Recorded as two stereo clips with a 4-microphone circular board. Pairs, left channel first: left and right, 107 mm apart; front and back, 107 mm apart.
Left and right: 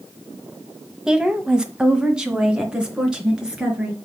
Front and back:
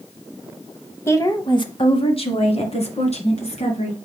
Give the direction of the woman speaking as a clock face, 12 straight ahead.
1 o'clock.